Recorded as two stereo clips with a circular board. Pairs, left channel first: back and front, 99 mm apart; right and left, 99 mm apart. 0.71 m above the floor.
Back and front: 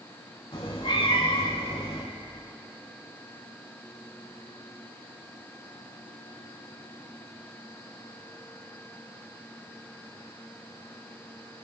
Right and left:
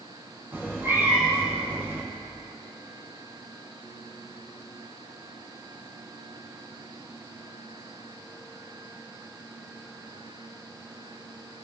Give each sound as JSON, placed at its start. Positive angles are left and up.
{"t": 0.5, "sound": "a cat meowing", "azimuth_deg": 160, "distance_m": 3.5}